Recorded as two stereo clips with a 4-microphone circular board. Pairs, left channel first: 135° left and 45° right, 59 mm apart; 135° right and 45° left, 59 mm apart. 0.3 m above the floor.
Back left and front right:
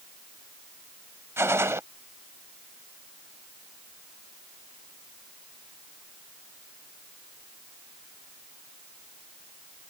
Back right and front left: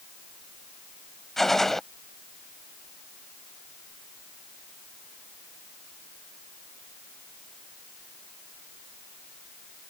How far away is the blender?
No blender in this recording.